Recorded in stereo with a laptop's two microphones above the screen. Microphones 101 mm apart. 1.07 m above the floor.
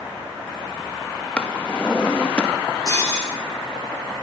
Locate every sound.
1.4 s a drawer: 10° left (ahead or behind), 0.9 m
2.9 s breaking glass: 30° left (ahead or behind), 6 m